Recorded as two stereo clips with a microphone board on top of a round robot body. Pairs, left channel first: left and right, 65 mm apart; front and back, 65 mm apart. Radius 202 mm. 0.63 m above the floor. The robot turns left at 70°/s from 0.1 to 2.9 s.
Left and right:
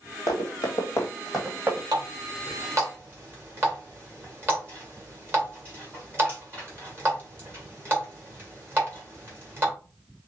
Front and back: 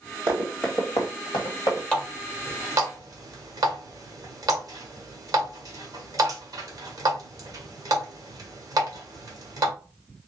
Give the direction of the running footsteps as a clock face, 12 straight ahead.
8 o'clock.